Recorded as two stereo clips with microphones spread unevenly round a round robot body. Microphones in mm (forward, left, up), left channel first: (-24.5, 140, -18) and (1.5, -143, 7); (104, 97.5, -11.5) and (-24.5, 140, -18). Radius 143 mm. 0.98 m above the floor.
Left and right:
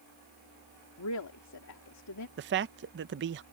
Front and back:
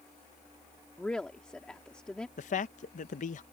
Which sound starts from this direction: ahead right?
A man speaking, at 2.4 s.